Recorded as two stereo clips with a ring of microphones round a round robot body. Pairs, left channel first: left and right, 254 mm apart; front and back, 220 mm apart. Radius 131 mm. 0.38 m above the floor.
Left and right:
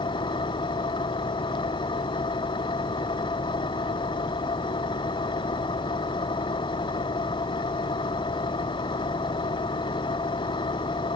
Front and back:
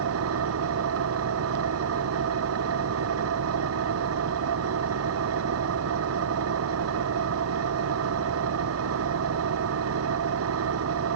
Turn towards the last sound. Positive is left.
turn(degrees=165)